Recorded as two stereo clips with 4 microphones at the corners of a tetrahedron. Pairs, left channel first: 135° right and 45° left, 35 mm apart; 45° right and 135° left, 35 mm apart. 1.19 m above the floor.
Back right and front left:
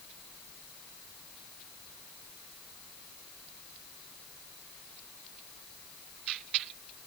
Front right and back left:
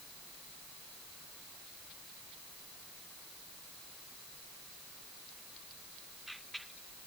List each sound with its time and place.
Only background noise.